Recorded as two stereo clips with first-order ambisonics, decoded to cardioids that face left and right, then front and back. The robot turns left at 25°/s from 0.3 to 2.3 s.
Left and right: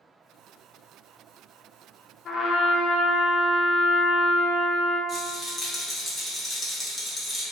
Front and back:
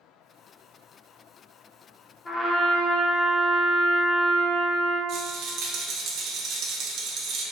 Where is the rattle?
165° left, 0.7 m.